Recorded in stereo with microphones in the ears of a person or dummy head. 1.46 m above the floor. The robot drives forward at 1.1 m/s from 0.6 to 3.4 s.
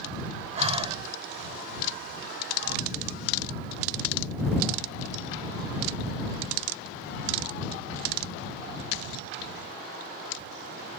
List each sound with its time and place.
0.6 s breathing: 25° right (ahead or behind)